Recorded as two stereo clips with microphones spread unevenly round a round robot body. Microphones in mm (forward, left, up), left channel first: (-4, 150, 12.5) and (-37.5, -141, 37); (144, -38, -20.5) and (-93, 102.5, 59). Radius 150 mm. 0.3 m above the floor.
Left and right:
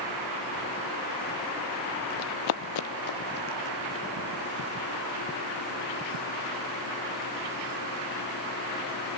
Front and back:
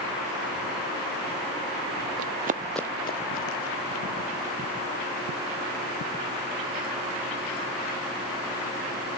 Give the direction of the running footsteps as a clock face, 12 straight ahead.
8 o'clock.